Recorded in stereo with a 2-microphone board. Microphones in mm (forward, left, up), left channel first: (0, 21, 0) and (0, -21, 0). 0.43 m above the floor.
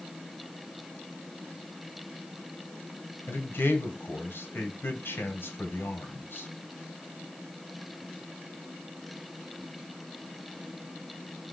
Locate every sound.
3.3 s a man speaking: 65° left (ahead or behind), 1.9 m